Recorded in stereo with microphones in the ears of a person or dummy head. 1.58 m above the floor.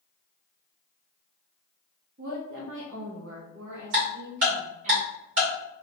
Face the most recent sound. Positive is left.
turn(degrees=-60)  # may be behind; listen again after turning